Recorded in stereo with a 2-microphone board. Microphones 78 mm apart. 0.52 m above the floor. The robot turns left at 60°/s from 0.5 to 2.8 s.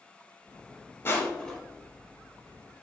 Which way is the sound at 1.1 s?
35° left (ahead or behind).